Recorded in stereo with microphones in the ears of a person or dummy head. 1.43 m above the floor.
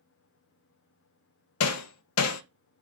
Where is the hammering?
85° left, 0.6 m.